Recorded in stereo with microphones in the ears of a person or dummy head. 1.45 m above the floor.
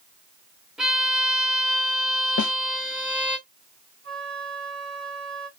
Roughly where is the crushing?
I don't hear crushing.